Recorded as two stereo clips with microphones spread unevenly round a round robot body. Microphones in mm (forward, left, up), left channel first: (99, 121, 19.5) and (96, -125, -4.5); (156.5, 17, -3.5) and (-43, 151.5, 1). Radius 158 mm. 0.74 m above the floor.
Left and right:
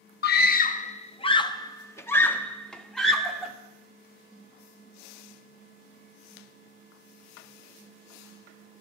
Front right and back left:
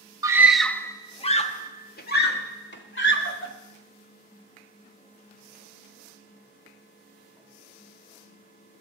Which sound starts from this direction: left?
A scream, at 0.2 s.